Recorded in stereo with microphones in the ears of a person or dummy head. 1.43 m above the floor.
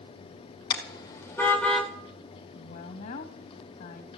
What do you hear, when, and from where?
0.7 s a car horn: 25° left (ahead or behind), 2 m; by 1.9 s centre (ahead or behind), 2 m
2.5 s a woman speaking: 45° left (ahead or behind), 2.5 m